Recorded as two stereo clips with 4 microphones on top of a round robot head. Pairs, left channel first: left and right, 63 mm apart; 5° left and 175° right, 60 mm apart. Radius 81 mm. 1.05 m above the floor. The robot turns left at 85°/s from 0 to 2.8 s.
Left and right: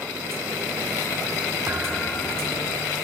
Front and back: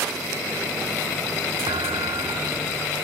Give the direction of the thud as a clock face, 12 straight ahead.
5 o'clock.